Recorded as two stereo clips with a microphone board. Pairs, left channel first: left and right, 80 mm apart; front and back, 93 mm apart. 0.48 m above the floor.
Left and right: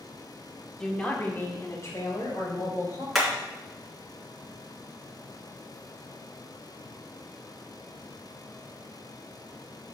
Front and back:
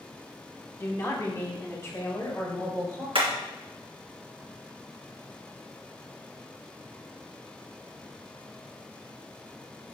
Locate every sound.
0.8 s a woman speaking: 15° left, 1.3 m; by 3.0 s 60° left, 3.5 m
3.1 s hammering: straight behind, 3 m